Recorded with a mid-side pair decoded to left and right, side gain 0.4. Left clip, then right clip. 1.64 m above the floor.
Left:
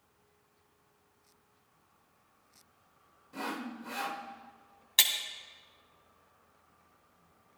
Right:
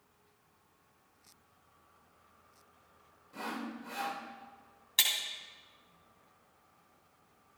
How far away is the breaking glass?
About 2.5 m.